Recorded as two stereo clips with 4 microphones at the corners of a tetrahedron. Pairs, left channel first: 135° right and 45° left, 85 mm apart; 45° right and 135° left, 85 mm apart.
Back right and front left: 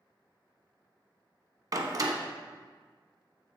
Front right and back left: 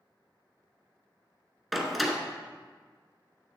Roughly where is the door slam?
Ahead left.